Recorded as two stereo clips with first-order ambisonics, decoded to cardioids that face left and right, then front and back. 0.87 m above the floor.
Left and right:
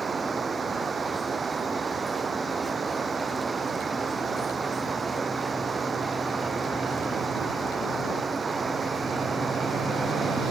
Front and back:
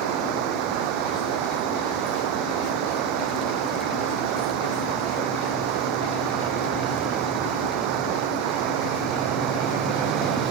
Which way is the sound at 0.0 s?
165° right.